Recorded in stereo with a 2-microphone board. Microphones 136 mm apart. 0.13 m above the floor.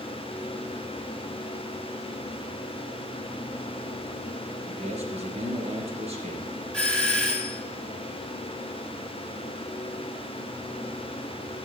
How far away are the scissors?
No scissors in this recording.